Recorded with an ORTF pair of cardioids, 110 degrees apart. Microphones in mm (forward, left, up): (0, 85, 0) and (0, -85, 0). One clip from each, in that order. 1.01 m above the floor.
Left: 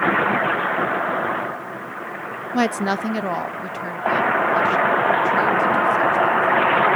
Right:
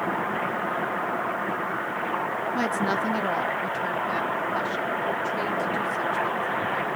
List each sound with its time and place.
2.5 s a woman speaking: 40° left, 0.5 m; by 6.9 s 5° left, 3 m